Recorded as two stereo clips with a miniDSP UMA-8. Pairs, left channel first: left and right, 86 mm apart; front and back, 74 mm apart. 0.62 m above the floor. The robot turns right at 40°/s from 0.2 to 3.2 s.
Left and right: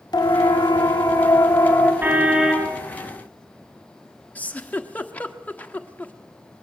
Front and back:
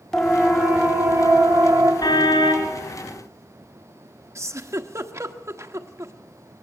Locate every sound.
0.1 s a siren: 80° left, 2.5 m; by 1.9 s 165° left, 4.5 m
2.0 s a car horn: 25° right, 3 m; by 2.7 s straight ahead, 3 m
4.3 s a giggle: 155° left, 1.0 m